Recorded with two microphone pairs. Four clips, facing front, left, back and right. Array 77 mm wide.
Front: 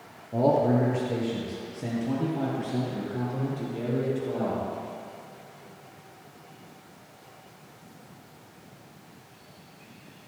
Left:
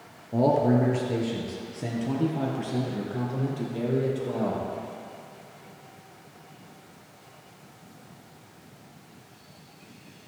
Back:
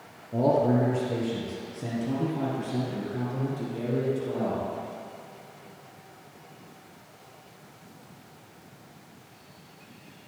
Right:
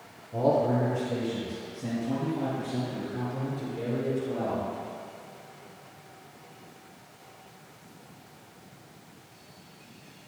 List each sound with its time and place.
0.3 s a man speaking: 85° left, 2 m; by 4.7 s 90° left, 4 m